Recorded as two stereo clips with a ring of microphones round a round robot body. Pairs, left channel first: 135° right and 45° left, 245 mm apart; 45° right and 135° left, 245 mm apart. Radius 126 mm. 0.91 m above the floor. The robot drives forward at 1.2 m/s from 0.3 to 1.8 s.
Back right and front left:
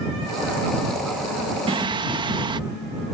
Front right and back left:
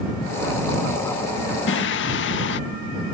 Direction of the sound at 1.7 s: 20° right.